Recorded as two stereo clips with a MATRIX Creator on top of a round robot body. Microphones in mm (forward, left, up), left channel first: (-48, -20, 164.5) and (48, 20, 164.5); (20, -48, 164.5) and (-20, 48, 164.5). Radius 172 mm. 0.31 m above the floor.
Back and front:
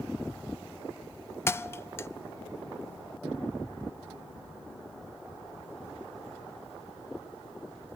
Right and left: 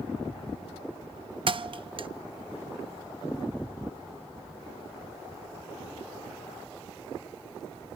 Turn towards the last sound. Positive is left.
turn(degrees=140)